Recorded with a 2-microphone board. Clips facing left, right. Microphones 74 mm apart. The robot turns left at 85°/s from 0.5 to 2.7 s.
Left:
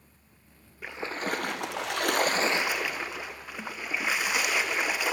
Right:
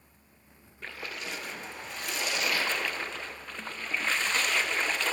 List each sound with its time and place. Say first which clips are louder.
0.8 s a splash: left 6 dB; 170° left, 0.6 m; by 5.1 s 10° left, 0.6 m